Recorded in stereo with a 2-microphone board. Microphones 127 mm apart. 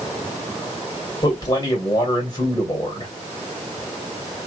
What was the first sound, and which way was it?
A man speaking, 35° left (ahead or behind).